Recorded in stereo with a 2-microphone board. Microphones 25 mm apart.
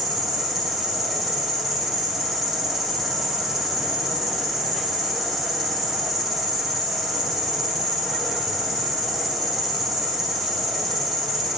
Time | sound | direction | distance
0.0 | an insect | centre (ahead or behind) | 0.9 m